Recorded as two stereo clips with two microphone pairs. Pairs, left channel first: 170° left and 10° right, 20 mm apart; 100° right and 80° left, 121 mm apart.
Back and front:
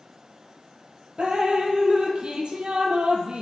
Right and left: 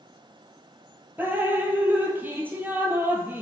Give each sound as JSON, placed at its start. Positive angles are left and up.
{"t": 1.2, "sound": "dripping", "azimuth_deg": 10, "distance_m": 0.8}